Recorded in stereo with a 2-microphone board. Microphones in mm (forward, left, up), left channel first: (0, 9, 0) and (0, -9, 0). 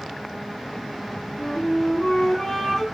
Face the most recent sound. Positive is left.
turn(degrees=70)  # may be behind; listen again after turning